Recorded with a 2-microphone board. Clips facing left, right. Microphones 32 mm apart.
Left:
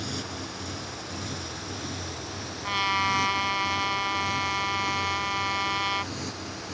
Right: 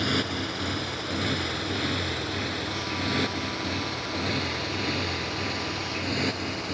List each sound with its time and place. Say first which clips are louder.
0.0 s a motorcycle: right 8 dB; 40° right (ahead or behind); by 6.7 s 45° right (ahead or behind)
2.6 s a trumpet: left 5 dB; 40° left (ahead or behind)